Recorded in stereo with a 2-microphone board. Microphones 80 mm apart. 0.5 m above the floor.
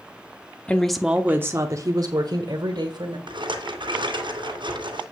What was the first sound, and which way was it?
A woman speaking, 15° left (ahead or behind).